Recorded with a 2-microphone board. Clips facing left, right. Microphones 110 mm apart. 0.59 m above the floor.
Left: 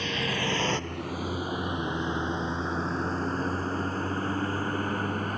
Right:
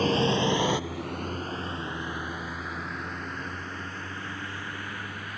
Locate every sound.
0.0 s a vehicle: 40° right (ahead or behind); by 5.4 s 40° left (ahead or behind)